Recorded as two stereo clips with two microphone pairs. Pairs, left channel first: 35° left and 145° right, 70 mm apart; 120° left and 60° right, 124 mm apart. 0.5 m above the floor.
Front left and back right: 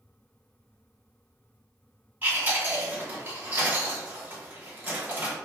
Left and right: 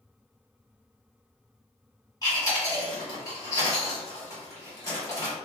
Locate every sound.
2.2 s chewing: 165° left, 1.7 m